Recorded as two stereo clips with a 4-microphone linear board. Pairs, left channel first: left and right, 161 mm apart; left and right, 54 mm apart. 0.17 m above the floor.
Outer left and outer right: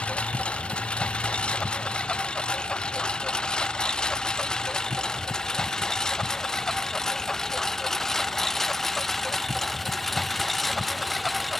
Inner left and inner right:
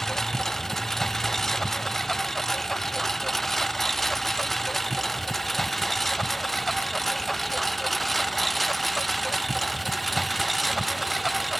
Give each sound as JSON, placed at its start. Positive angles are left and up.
{"t": 0.0, "sound": "a lawn mower", "side_deg": 5}